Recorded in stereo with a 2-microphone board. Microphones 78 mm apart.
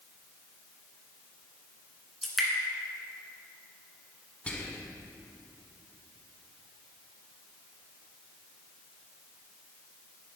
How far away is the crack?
I don't hear a crack.